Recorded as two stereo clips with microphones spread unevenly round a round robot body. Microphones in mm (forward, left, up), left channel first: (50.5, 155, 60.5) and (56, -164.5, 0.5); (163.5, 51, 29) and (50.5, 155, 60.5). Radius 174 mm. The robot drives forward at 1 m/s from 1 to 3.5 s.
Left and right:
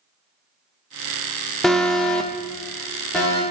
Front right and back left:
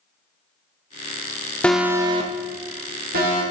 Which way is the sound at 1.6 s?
30° right.